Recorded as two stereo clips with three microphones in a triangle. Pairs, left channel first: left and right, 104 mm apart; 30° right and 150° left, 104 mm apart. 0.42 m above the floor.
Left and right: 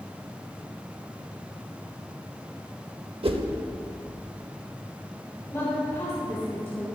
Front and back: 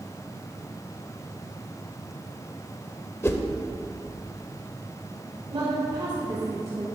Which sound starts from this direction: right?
A whoosh, at 3.2 s.